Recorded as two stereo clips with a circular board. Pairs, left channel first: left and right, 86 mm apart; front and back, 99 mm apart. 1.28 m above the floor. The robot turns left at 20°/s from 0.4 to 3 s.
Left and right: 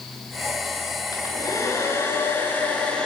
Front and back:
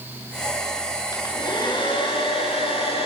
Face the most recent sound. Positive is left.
turn(degrees=10)